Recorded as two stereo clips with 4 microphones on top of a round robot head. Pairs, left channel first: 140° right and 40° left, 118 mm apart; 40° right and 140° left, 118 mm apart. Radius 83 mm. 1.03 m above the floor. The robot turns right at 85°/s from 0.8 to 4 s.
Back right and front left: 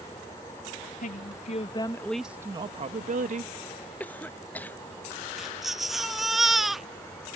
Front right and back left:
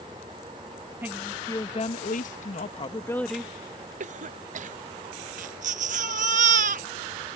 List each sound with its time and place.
1.0 s a woman speaking: 150° right; by 3.5 s 65° left
4.0 s a cough: 145° left
5.4 s a baby crying: 130° left